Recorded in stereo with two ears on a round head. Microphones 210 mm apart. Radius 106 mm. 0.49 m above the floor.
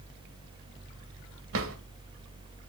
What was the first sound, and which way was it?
A drawer, 65° right (ahead or behind).